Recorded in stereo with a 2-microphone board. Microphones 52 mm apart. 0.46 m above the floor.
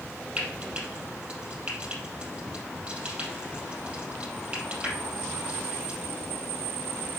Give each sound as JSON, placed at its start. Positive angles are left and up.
{"t": 0.4, "sound": "frying", "side_deg": -20, "distance_m": 4.0}